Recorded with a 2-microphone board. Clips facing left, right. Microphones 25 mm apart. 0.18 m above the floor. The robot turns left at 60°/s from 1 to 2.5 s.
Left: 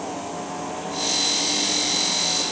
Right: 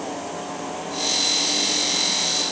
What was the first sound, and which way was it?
Only background noise.